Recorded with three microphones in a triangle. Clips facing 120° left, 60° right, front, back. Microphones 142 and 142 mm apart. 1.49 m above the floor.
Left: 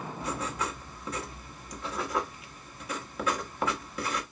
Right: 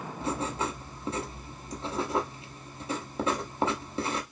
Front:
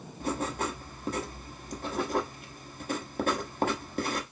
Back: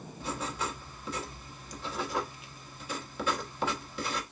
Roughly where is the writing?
Ahead.